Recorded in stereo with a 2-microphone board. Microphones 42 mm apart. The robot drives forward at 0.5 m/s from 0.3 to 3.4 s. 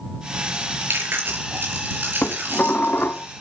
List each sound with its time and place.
0.5 s chewing: 65° right (ahead or behind), 5.5 m; by 3.2 s 55° right (ahead or behind), 6 m
2.2 s dishes clattering: 60° left (ahead or behind), 1.6 m